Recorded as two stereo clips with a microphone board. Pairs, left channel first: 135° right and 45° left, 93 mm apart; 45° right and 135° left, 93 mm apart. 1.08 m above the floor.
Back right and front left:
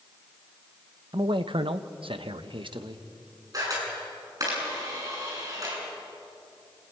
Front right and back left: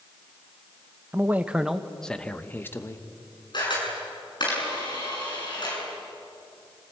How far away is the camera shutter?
About 7.5 m.